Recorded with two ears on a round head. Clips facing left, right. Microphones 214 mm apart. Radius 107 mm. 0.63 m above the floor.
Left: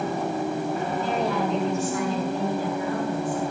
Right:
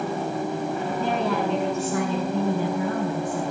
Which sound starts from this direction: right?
A woman speaking, at 1.0 s.